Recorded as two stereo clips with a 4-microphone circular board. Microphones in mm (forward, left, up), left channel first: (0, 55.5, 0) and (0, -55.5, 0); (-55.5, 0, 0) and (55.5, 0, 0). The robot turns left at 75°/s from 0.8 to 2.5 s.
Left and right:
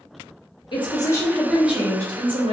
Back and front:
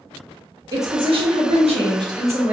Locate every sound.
0.7 s a woman speaking: 55° left, 1.0 m; by 2.5 s 75° right, 1.0 m